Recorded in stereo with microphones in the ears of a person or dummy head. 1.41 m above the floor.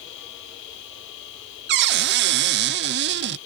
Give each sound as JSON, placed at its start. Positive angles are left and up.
{"t": 0.0, "sound": "a machine running", "side_deg": 65}
{"t": 1.7, "sound": "a cupboard door", "side_deg": -55}